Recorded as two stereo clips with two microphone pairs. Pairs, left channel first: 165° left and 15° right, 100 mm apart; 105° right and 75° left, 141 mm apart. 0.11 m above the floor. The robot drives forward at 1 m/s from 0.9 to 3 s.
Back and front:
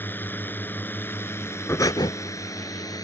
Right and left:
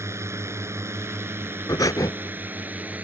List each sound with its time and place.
0.0 s a drone: 120° left; by 3.0 s 145° left
1.7 s breathing: 150° right; by 2.1 s 170° right